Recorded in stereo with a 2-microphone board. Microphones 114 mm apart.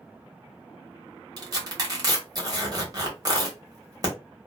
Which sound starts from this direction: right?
Tearing paper, at 1.4 s.